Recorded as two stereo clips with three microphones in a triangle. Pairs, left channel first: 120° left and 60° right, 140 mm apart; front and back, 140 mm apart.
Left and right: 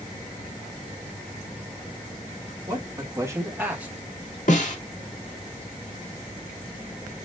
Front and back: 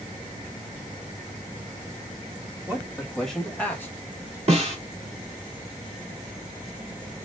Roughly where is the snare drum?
Behind left.